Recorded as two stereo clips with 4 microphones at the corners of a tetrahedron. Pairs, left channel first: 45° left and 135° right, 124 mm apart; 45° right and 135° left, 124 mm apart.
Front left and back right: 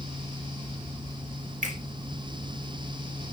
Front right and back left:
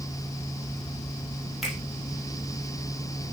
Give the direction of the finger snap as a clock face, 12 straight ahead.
5 o'clock.